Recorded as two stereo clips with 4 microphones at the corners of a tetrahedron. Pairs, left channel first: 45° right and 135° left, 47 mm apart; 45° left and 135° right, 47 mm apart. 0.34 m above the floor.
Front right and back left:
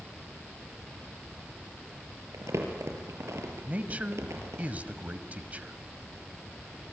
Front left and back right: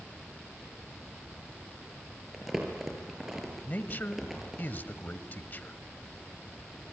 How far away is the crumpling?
About 4.5 m.